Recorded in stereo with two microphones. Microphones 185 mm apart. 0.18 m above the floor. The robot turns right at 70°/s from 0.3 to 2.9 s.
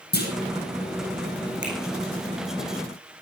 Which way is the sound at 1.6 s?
75° right (ahead or behind).